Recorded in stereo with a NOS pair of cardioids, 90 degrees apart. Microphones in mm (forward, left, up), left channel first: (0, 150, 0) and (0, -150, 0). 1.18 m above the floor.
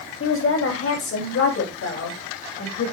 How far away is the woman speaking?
About 8 m.